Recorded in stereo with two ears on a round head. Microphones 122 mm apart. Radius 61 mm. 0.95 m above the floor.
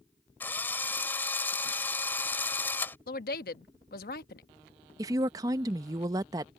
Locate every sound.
0.4 s a drill: 15° left (ahead or behind)
3.1 s a woman speaking: 70° left (ahead or behind)
5.0 s a woman speaking: 25° right (ahead or behind)